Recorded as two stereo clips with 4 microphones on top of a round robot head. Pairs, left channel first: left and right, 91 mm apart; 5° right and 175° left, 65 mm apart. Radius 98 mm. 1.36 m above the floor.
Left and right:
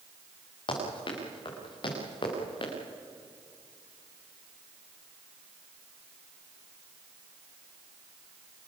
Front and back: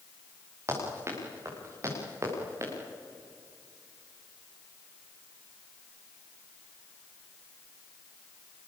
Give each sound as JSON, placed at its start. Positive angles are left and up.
{"t": 0.7, "sound": "running footsteps", "azimuth_deg": 125, "distance_m": 9.5}